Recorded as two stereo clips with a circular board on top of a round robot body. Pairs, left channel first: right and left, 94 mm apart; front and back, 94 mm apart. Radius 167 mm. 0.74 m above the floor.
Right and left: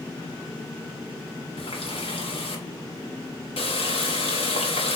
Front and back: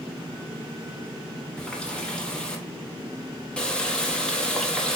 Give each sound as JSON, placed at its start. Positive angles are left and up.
{"t": 1.6, "sound": "a running tap", "azimuth_deg": -80, "distance_m": 1.1}